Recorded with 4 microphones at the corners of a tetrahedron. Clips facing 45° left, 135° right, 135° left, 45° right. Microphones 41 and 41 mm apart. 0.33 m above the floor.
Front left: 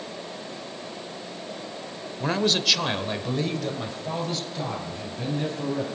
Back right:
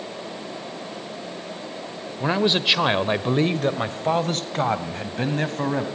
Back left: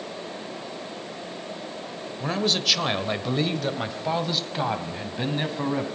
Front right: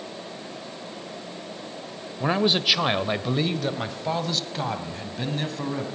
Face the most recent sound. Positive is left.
turn(degrees=-155)